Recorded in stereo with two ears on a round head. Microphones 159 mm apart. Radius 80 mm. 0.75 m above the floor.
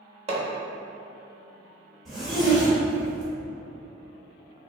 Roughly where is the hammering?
Right.